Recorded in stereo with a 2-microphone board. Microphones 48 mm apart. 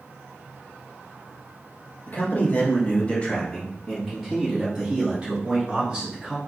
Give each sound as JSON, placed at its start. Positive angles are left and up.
{"t": 2.1, "sound": "a man speaking", "side_deg": 40, "distance_m": 1.2}